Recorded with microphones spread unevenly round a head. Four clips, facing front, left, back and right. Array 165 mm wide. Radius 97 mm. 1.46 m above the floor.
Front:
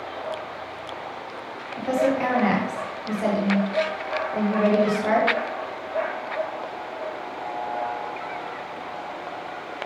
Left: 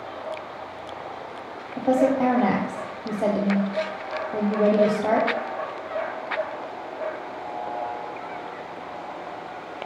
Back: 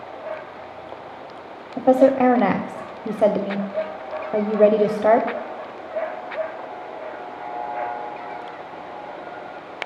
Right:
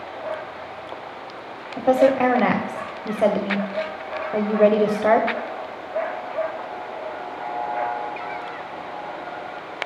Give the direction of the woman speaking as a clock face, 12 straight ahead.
6 o'clock.